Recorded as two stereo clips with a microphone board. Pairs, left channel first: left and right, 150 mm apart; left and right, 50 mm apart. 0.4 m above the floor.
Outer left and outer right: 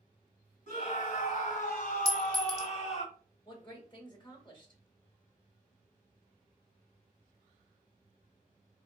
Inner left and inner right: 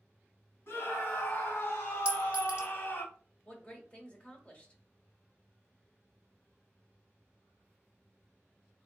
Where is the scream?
60° left (ahead or behind), 2 m; by 3.0 s 45° left (ahead or behind), 1.4 m.